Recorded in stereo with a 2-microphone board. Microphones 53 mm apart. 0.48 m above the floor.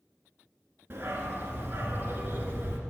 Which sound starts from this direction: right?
A dog barking, at 0.9 s.